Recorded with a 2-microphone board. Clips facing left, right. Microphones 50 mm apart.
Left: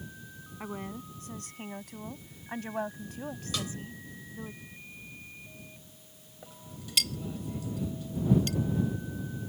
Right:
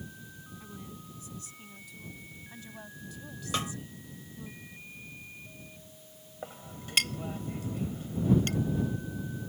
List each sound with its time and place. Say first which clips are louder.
0.6 s a woman speaking: left 10 dB; 55° left (ahead or behind); by 4.5 s 30° left (ahead or behind)
3.5 s a snare drum: right 4 dB; 35° right (ahead or behind)
6.4 s a clink: right 4 dB; 45° right (ahead or behind)